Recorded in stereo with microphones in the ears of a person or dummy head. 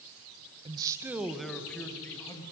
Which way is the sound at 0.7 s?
30° right (ahead or behind).